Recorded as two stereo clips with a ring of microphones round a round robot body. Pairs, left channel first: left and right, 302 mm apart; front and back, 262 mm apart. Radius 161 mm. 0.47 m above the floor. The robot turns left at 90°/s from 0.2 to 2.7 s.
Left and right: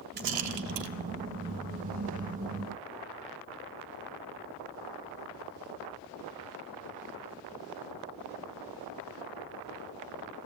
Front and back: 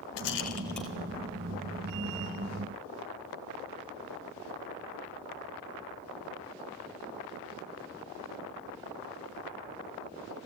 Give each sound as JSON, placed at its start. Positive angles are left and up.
{"t": 0.2, "sound": "a rattle", "azimuth_deg": -35, "distance_m": 1.7}